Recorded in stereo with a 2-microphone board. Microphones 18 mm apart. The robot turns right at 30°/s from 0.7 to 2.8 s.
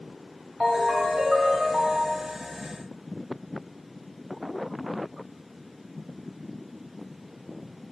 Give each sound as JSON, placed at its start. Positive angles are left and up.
{"t": 0.6, "sound": "a ringtone", "azimuth_deg": -150, "distance_m": 1.3}